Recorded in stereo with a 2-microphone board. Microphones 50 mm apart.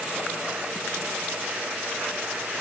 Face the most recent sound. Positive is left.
No sound to turn to.